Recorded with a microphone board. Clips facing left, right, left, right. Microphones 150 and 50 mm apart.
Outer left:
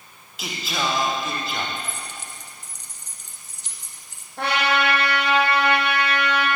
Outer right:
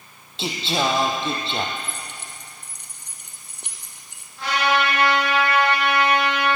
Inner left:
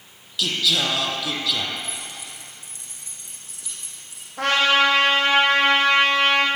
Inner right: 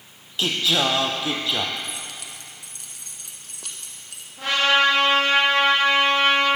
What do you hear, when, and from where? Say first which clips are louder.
0.4 s singing: outer right 4 dB, inner right 1 dB; 30° right (ahead or behind), 2.5 m
1.8 s keys jangling: even, even; 65° right (ahead or behind), 2.5 m
4.4 s a trumpet: outer right 1 dB, inner left 1 dB; 65° left (ahead or behind), 6.5 m